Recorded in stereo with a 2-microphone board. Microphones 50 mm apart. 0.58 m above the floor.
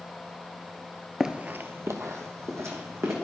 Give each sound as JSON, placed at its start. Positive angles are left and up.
{"t": 1.2, "sound": "running footsteps", "side_deg": -10, "distance_m": 0.6}